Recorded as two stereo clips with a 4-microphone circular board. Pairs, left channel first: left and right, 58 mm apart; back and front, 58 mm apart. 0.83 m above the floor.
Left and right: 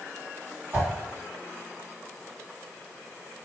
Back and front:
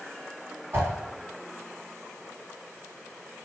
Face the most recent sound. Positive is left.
turn(degrees=-35)